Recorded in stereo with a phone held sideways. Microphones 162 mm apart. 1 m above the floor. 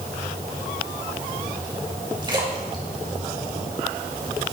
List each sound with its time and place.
2.2 s a splash: 30° right (ahead or behind), 5 m